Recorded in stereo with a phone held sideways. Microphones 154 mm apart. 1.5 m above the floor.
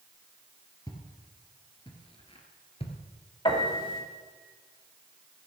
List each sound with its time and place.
0.9 s footsteps: 25° left (ahead or behind), 1.9 m; by 3.0 s 40° left (ahead or behind), 1.8 m
3.5 s a piano: 35° left (ahead or behind), 2 m